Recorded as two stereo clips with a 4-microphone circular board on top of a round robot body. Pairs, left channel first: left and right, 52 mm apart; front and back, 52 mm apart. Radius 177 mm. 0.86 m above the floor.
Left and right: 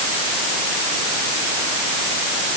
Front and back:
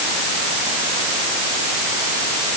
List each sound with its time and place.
Only background noise.